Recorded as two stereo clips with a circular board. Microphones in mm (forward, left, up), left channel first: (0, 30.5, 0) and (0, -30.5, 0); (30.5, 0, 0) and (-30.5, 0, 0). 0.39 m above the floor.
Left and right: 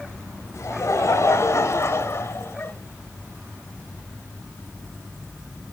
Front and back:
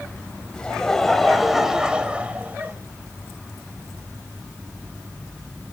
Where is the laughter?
75° left, 2.5 m; by 2.7 s 130° left, 2 m.